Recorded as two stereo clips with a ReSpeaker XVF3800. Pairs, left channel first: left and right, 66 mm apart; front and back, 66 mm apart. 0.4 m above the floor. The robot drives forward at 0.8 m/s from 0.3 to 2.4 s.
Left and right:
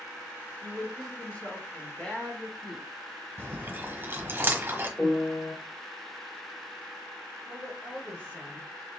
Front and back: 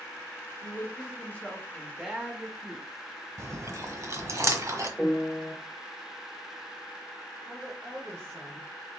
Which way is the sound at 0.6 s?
20° left.